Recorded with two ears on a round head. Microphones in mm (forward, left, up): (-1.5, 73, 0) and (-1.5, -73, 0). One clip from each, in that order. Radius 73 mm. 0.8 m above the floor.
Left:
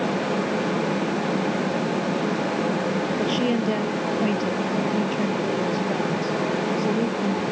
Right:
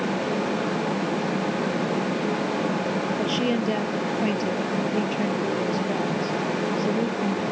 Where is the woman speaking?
10° right (ahead or behind).